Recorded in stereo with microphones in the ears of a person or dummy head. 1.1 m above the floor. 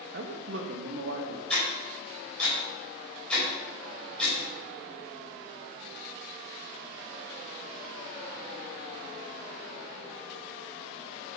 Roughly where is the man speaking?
Right.